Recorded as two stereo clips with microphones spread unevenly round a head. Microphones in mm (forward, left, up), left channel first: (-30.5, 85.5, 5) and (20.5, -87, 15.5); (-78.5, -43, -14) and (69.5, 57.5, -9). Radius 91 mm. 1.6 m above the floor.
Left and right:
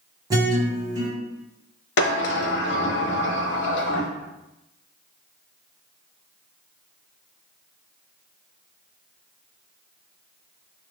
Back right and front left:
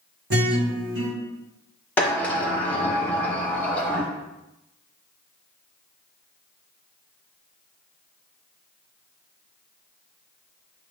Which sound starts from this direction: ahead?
A guitar, at 0.3 s.